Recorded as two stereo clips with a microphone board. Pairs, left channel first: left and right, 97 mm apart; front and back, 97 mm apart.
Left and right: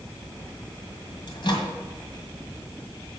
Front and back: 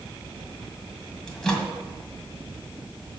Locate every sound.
1.3 s a microwave: 80° left, 2 m